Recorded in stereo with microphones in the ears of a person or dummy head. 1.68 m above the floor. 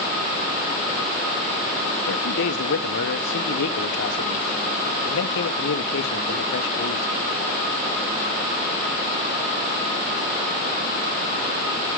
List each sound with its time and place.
2.1 s a man speaking: 75° left (ahead or behind), 1.2 m